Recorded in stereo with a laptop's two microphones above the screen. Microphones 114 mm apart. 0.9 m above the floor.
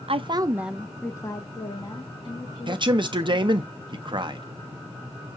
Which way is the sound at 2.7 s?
45° right (ahead or behind).